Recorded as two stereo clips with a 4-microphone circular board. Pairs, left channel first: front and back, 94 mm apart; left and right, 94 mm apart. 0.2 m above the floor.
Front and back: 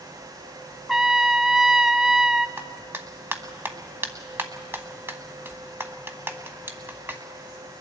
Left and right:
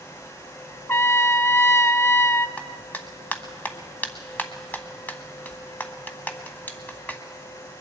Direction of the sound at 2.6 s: 140° left.